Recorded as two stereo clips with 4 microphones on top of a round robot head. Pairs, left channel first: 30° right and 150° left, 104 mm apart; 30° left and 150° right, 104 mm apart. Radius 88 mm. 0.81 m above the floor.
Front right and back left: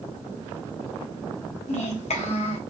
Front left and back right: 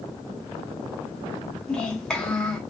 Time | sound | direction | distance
1.7 | a child speaking | 50° right | 1.3 m